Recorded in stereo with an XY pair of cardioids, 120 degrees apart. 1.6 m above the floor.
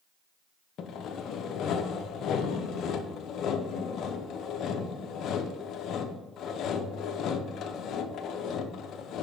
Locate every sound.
0.8 s sawing: 60° left, 0.7 m